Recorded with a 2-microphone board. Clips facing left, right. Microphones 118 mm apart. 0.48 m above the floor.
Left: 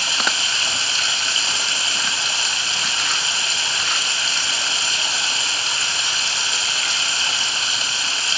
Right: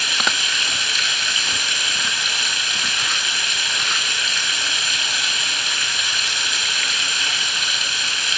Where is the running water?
30° left (ahead or behind), 3 m.